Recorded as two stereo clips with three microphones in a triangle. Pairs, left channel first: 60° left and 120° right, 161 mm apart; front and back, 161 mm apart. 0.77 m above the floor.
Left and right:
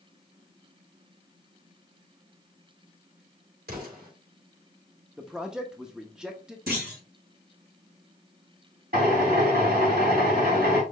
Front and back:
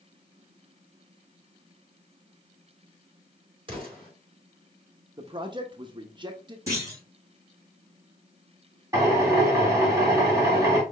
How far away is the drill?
About 2.5 m.